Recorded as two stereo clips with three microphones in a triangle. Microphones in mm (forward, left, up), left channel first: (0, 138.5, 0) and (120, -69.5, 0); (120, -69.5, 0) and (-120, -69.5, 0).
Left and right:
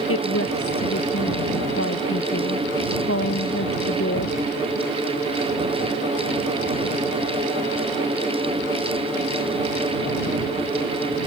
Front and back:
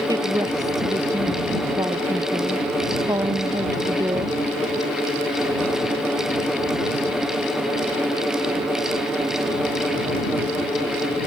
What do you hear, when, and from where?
0.1 s a woman speaking: 105° left